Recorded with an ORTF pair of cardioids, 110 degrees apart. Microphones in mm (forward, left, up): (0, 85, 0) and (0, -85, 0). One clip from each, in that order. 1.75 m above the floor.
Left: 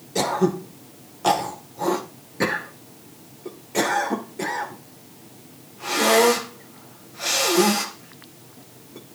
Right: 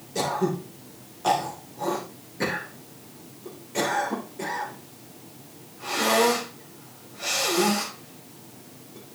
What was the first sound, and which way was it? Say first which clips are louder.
Throat clearing: left 4 dB; 30° left.